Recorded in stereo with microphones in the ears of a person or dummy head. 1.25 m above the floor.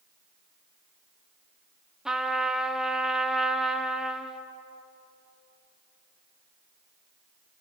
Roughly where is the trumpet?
Centre.